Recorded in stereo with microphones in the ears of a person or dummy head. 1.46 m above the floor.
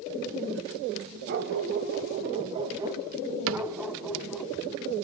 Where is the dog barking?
55° right (ahead or behind), 2.5 m; by 4.5 s centre (ahead or behind), 3 m.